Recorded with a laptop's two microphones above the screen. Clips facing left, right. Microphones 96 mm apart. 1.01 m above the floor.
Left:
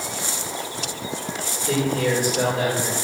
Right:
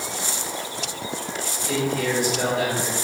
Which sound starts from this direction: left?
A man speaking, at 1.7 s.